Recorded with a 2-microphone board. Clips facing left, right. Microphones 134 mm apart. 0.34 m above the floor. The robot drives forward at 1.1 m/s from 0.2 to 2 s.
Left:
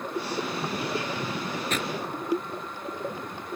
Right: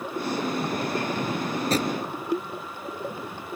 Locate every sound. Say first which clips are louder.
1.5 s a drawer: right 7 dB; 35° right (ahead or behind); by 2.0 s 40° right (ahead or behind)